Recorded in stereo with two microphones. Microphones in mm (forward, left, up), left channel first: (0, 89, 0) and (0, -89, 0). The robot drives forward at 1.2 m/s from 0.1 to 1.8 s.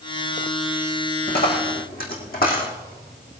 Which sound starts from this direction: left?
A dropped coin, at 1.3 s.